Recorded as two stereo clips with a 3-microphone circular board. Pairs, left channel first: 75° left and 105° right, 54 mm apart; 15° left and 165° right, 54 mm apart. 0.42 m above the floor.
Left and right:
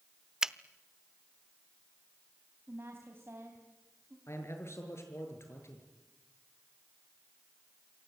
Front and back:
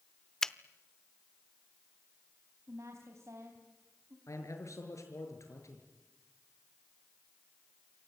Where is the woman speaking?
145° right, 3.5 m.